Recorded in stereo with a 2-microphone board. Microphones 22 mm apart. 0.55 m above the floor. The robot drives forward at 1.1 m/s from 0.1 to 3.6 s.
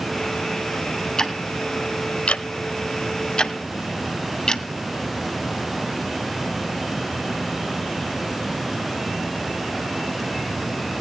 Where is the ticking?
25° left (ahead or behind), 1.8 m; by 4.7 s 35° left (ahead or behind), 1.3 m.